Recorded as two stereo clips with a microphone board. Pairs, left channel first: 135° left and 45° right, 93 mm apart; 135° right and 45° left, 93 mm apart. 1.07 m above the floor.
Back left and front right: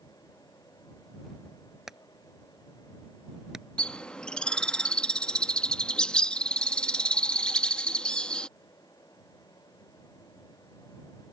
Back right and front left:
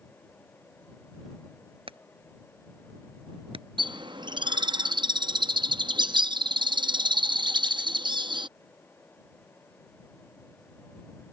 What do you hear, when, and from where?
1.9 s hammering: 40° left
3.8 s a bird: 55° left